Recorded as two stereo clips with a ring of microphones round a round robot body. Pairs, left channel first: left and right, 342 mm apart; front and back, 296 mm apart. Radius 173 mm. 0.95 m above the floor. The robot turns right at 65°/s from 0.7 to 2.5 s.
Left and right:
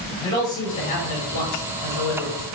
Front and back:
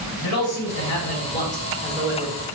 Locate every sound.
0.2 s a man speaking: 15° left, 3 m; by 2.5 s 125° left, 3 m